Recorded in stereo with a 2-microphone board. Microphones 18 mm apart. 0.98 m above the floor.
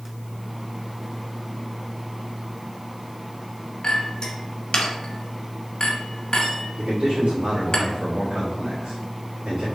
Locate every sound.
3.8 s a clink: 45° left (ahead or behind), 1.0 m
6.8 s a man speaking: 85° right, 1.4 m